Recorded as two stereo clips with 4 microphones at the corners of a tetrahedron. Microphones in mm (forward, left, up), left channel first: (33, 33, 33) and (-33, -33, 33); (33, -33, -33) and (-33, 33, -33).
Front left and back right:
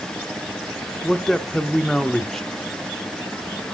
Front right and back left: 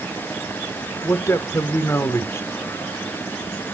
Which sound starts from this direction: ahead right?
A man speaking, at 1.0 s.